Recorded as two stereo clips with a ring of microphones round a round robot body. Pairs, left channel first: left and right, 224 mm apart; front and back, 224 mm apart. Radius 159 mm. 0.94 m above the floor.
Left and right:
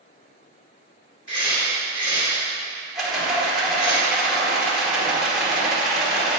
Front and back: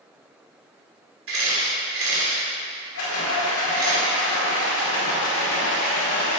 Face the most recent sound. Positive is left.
turn(degrees=0)